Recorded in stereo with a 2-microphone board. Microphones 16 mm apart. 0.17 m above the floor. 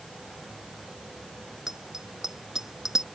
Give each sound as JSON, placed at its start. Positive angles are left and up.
{"t": 1.7, "sound": "a bicycle bell", "side_deg": -30}